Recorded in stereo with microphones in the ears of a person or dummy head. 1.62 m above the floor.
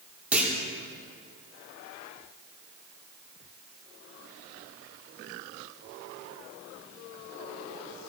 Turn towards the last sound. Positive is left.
turn(degrees=0)  # may be behind; listen again after turning